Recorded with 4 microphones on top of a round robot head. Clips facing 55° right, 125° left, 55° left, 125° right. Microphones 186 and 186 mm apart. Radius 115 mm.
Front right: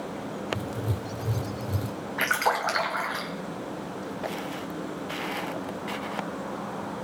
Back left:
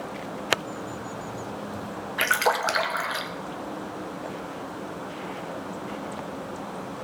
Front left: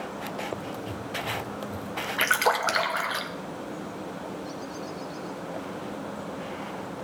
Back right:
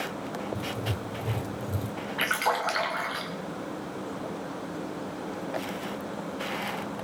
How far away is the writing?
About 0.7 m.